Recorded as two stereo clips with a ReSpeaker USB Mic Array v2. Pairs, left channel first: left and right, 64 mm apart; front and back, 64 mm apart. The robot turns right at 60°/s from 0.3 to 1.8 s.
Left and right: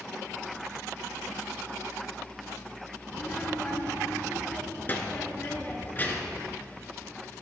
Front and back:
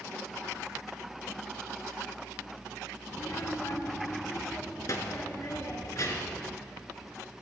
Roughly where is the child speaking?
Ahead left.